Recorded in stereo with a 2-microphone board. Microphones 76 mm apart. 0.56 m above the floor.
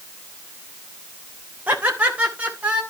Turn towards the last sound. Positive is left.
turn(degrees=-15)  # may be behind; listen again after turning